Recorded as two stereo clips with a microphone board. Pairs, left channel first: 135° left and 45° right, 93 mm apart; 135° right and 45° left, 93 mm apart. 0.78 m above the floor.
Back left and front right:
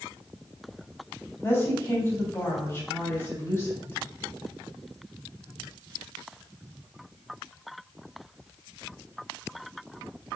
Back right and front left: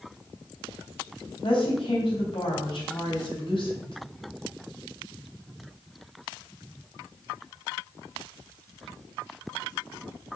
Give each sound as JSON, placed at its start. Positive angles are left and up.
{"t": 1.4, "sound": "a woman speaking", "azimuth_deg": -160, "distance_m": 3.5}